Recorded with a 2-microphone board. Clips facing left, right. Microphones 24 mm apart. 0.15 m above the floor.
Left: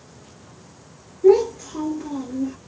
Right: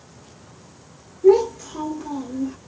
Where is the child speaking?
20° left (ahead or behind), 1.8 m.